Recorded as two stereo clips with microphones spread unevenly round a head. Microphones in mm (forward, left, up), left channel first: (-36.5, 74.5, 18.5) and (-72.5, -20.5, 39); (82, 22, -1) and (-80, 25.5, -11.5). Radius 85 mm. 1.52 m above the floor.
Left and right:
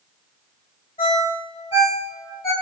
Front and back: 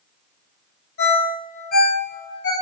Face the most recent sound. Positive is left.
turn(degrees=5)